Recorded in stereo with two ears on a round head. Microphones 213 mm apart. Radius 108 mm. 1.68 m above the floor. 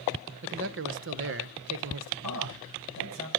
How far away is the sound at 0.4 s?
About 1.0 m.